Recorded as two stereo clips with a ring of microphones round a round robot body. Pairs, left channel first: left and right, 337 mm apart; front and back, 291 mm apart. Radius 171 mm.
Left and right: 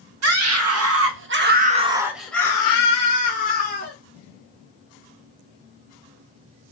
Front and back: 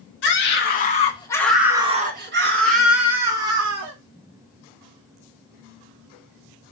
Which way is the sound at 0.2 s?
50° right.